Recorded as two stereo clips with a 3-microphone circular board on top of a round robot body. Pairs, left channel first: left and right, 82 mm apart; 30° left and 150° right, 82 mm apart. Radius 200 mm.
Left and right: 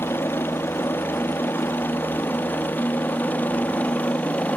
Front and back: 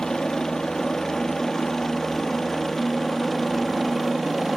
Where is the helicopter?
110° left; by 4.6 s 120° left.